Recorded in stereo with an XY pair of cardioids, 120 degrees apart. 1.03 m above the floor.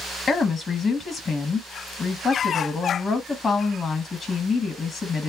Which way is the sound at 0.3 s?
30° left.